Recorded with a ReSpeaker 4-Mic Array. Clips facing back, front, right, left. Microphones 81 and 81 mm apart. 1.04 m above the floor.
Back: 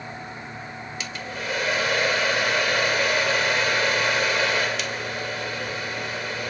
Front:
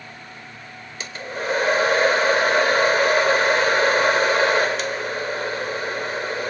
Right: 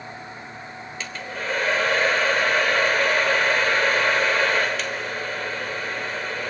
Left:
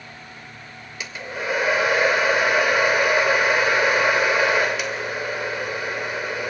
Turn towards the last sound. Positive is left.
turn(degrees=20)